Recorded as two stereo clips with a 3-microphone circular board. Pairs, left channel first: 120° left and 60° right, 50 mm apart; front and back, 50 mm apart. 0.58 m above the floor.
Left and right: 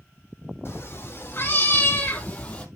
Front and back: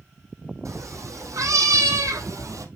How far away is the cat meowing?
About 3.5 m.